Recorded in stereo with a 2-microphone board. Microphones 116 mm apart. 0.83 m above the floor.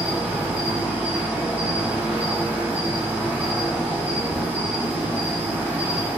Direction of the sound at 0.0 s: 15° right (ahead or behind).